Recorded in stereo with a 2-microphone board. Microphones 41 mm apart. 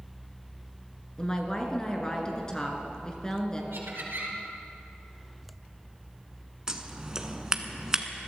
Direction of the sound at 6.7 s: 15° right (ahead or behind).